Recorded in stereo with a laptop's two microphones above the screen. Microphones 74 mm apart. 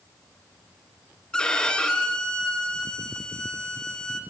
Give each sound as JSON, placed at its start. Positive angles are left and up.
{"t": 1.3, "sound": "a violin", "side_deg": 10, "distance_m": 2.5}